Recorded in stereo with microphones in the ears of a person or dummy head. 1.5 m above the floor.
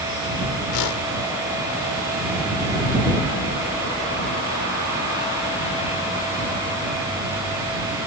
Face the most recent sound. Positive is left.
turn(degrees=85)